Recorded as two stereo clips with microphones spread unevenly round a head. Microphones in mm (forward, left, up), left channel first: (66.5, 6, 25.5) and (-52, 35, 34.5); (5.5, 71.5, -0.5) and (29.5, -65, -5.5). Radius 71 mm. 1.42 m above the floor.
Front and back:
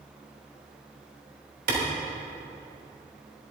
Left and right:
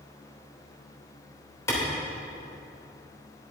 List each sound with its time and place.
1.7 s a clap: 170° left, 3.5 m